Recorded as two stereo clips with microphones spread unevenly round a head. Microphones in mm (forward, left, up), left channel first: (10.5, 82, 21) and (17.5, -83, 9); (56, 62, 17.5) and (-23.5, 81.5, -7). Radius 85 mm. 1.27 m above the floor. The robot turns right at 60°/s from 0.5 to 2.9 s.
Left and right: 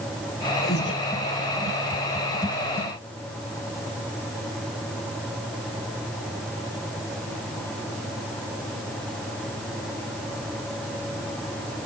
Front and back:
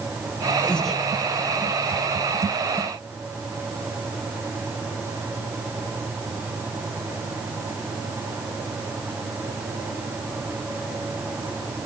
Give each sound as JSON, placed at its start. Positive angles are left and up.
{"t": 0.6, "sound": "breathing", "azimuth_deg": 55, "distance_m": 4.5}